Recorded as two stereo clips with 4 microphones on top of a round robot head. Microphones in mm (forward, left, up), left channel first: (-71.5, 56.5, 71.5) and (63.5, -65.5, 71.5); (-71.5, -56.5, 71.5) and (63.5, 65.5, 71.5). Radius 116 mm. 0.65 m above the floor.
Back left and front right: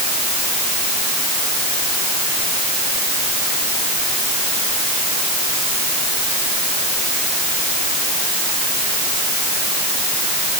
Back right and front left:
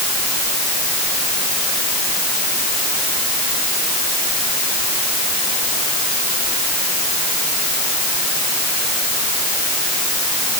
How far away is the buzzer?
I don't hear a buzzer.